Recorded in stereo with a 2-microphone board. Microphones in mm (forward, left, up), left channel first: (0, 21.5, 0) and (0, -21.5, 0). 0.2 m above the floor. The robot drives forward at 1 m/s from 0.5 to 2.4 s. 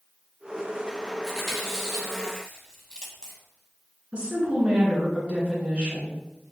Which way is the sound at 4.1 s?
25° right (ahead or behind).